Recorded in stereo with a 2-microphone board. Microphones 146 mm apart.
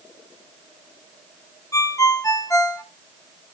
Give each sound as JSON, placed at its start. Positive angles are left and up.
{"t": 1.7, "sound": "a ringtone", "side_deg": 20, "distance_m": 0.9}